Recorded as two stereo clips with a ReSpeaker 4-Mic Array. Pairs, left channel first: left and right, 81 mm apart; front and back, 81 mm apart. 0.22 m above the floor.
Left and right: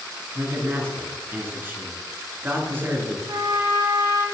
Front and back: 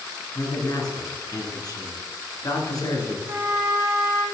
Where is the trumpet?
115° right, 2 m.